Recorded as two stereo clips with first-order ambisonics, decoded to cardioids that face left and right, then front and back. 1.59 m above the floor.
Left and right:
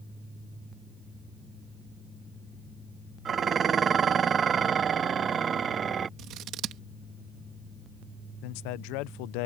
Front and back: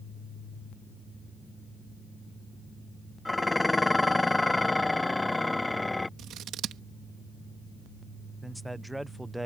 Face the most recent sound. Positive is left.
turn(degrees=95)